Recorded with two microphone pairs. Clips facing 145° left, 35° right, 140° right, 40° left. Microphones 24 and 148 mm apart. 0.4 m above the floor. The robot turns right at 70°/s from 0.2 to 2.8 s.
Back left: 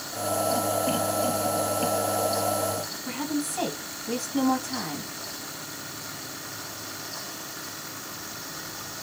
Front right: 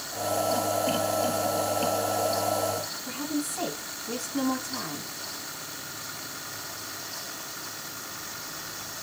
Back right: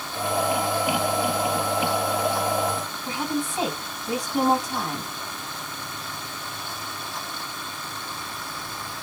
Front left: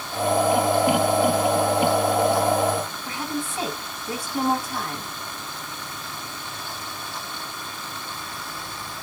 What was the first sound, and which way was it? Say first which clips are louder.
A woman speaking: back left 3 dB, back right 2 dB; 150° left.